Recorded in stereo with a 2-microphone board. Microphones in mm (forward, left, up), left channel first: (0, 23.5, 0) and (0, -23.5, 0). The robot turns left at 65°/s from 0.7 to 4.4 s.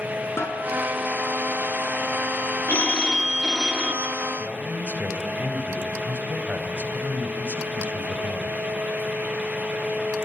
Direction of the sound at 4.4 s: 35° right (ahead or behind).